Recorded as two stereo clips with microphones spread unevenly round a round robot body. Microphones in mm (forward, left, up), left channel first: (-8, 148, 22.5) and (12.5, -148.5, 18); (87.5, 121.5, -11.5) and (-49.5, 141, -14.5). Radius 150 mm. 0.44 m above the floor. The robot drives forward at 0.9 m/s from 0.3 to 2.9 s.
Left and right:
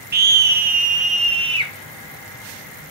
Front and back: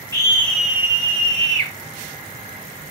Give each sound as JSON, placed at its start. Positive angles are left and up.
{"t": 0.1, "sound": "a scream", "azimuth_deg": -65, "distance_m": 0.8}